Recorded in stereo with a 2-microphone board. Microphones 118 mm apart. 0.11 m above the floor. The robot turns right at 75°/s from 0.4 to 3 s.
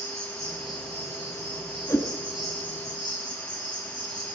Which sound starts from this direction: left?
A whoosh, at 1.9 s.